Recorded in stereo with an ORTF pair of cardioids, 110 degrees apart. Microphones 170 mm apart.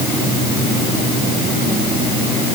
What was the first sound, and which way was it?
Only background noise.